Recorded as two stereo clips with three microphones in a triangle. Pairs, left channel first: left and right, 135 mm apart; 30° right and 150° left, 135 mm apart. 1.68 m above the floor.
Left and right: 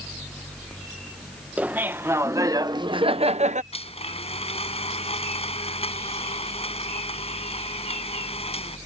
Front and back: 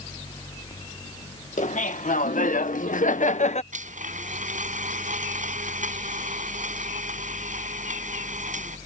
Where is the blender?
130° left.